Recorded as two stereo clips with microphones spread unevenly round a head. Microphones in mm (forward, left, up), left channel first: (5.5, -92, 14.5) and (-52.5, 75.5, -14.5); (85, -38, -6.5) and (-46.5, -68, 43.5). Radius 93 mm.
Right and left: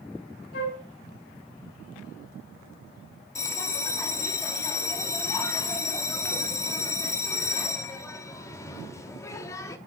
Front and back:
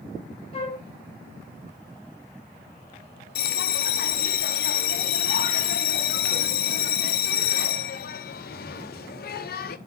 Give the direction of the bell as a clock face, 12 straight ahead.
12 o'clock.